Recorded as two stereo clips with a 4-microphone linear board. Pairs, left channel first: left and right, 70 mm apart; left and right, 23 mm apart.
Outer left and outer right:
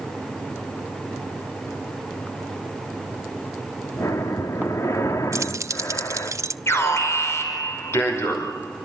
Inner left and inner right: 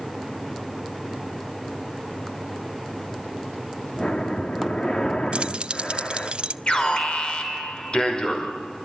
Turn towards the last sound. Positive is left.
turn(degrees=40)  # may be behind; listen again after turning